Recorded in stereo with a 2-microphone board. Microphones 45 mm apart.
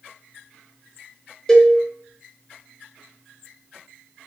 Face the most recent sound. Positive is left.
turn(degrees=10)  # may be behind; listen again after turning